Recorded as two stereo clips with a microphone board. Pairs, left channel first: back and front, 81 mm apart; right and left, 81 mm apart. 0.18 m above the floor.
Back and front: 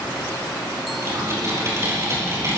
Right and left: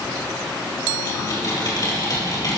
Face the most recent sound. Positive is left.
turn(degrees=-50)